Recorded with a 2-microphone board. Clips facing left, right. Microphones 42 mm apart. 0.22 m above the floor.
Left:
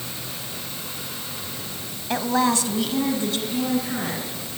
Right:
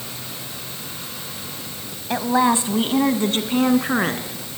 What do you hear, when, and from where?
2.1 s a woman speaking: 5° right (ahead or behind), 1.2 m; by 4.6 s 60° right (ahead or behind), 3 m